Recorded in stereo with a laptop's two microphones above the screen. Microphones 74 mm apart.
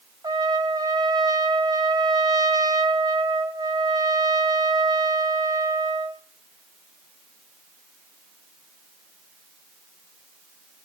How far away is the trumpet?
About 1.6 m.